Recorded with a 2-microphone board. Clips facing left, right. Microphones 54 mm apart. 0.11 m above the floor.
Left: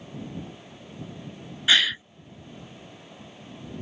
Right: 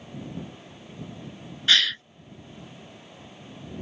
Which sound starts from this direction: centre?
A gasp, at 1.7 s.